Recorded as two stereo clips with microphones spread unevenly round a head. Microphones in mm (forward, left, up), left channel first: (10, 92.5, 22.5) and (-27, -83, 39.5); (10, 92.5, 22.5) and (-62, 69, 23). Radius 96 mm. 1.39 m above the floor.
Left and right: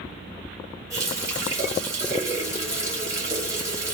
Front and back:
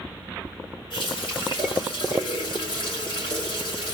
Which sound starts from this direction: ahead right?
A running tap, at 0.9 s.